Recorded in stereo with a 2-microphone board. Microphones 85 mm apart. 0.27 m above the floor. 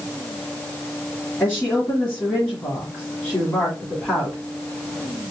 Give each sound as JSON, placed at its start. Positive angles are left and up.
{"t": 1.4, "sound": "a woman speaking", "side_deg": 20, "distance_m": 2.0}